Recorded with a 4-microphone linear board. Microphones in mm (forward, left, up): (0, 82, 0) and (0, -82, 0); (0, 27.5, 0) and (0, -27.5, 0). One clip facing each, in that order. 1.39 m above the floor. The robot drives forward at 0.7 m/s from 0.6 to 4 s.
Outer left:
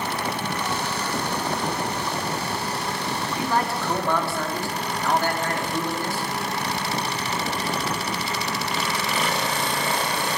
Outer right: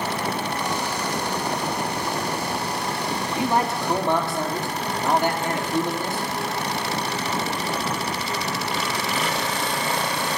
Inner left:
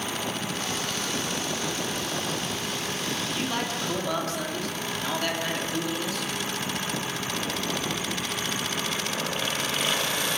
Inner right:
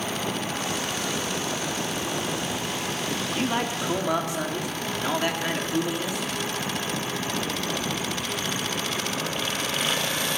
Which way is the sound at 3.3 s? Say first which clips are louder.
Outer right 3 dB, inner right 3 dB; 20° right (ahead or behind).